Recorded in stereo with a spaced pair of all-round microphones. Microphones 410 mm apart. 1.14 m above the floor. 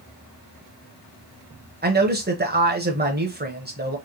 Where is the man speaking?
25° right (ahead or behind), 0.8 m.